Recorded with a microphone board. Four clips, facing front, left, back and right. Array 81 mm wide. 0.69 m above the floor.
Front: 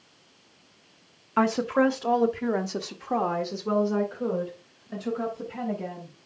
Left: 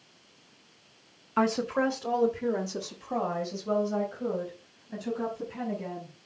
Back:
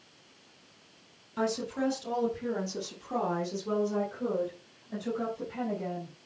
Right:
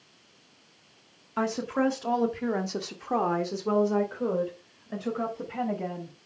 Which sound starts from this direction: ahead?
A woman speaking, at 1.4 s.